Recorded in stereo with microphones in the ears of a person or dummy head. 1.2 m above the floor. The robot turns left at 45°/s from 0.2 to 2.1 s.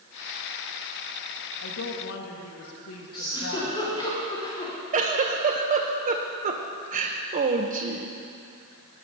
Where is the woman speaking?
80° left, 1.4 m; by 3.8 s 75° left (ahead or behind), 1.4 m.